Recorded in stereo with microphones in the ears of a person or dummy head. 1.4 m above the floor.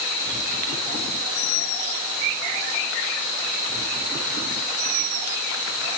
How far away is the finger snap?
I don't hear a finger snap.